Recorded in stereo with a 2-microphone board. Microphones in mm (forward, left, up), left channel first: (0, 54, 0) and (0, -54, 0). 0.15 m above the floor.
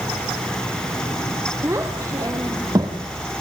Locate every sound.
1.6 s a child speaking: 25° right (ahead or behind), 2.5 m; by 3.0 s 40° right (ahead or behind), 3 m